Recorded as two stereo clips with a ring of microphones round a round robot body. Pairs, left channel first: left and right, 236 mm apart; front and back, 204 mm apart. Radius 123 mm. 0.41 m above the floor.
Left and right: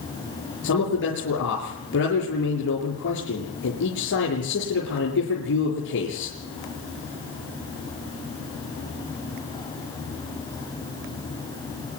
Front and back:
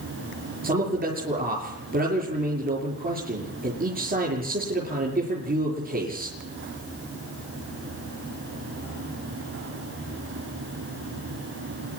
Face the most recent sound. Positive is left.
turn(degrees=135)